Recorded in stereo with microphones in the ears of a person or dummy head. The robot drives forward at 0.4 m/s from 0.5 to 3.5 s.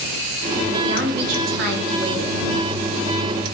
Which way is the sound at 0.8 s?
60° right (ahead or behind).